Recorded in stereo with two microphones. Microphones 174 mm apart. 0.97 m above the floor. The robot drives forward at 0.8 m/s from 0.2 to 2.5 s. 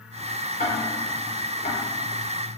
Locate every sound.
0.6 s ticking: 60° left (ahead or behind), 3.5 m; by 1.8 s 75° left (ahead or behind), 3 m